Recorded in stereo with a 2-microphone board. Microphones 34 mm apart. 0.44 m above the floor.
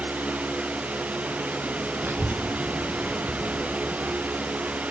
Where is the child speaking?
70° right (ahead or behind), 2 m.